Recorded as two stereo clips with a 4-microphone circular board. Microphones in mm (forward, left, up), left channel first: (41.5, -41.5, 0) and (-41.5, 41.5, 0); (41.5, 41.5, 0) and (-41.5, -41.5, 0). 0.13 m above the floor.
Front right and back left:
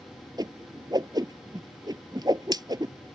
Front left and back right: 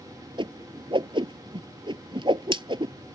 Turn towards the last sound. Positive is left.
turn(degrees=-175)